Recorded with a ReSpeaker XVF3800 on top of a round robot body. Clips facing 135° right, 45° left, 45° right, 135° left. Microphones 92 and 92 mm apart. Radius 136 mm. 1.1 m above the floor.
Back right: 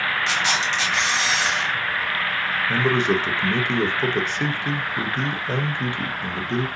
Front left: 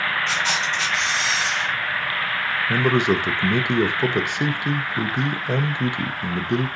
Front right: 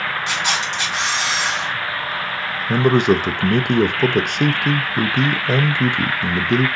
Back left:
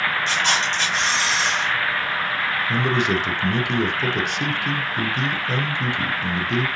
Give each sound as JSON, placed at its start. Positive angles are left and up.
{"t": 0.3, "sound": "a camera shutter", "azimuth_deg": -125, "distance_m": 1.8}
{"t": 2.7, "sound": "a man speaking", "azimuth_deg": -25, "distance_m": 0.7}